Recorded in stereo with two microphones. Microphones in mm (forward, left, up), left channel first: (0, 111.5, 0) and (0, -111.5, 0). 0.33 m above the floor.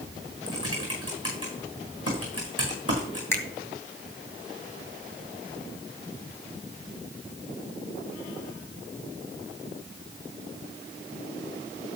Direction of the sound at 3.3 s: 10° left (ahead or behind).